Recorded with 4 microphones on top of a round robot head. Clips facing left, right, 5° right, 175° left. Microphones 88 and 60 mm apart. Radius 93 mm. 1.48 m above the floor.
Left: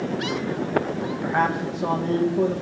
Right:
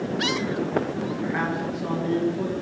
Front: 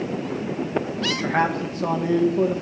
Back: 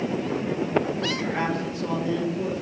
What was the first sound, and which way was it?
A man speaking, 30° left.